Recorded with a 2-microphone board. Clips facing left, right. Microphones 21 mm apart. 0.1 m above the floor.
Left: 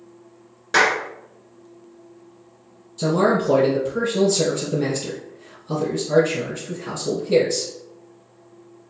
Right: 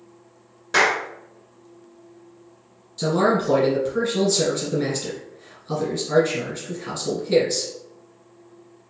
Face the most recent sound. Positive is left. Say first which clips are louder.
# left 1 dB
turn(degrees=-20)  # may be behind; listen again after turning